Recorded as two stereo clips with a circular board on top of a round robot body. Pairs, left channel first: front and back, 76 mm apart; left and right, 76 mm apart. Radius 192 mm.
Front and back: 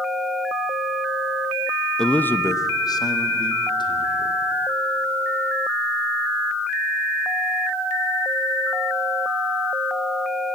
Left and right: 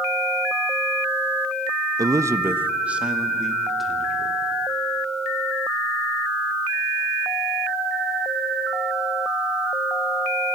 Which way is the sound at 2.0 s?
80° right.